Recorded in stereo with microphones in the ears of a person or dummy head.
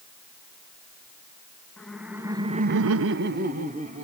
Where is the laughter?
5° left (ahead or behind), 1.7 m; by 4.0 s 40° right (ahead or behind), 2 m.